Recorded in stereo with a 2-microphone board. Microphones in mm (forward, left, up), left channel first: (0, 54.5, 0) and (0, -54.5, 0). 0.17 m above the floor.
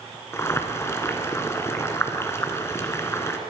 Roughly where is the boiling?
Left.